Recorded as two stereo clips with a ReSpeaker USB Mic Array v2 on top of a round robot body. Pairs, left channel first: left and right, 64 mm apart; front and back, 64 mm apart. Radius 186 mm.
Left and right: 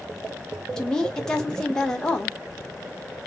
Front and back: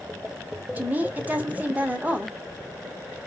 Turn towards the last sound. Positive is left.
turn(degrees=160)